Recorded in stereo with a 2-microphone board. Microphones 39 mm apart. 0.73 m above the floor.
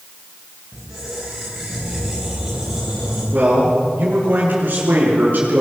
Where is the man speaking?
50° right (ahead or behind), 8 m.